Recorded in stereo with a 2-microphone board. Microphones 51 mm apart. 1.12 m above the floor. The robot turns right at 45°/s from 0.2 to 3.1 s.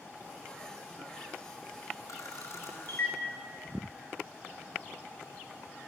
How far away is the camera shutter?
About 5 m.